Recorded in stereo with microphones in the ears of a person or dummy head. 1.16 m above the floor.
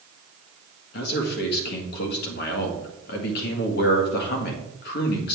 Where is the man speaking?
60° left (ahead or behind), 1.6 m.